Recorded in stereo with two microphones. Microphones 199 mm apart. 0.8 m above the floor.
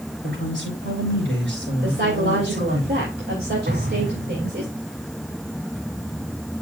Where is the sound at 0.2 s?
70° right (ahead or behind), 4 m.